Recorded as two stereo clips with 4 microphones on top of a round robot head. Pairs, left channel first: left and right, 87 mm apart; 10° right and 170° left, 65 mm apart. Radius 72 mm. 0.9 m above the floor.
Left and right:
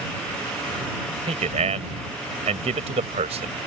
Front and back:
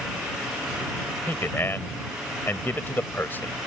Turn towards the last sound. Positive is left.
turn(degrees=-80)